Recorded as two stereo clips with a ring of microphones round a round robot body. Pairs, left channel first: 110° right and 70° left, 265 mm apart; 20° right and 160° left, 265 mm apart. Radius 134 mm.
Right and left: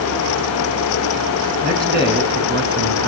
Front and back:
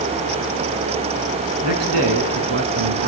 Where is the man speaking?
125° left, 4 m; by 3.1 s 100° left, 3 m.